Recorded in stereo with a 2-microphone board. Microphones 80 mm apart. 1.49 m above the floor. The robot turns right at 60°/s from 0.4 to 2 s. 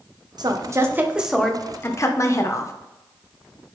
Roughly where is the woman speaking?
Ahead right.